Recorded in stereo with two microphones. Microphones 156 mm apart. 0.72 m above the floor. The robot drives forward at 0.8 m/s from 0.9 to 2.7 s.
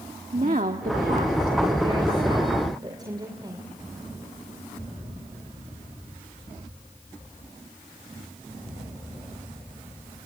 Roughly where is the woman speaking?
Right.